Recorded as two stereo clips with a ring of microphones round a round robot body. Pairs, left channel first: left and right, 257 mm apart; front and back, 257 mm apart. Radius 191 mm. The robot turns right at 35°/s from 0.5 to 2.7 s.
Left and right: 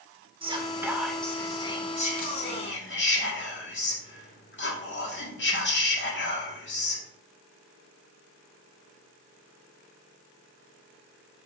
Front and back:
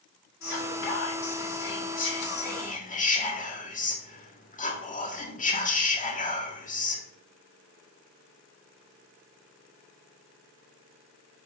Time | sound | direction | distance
0.4 | whispering | 20° right | 2.0 m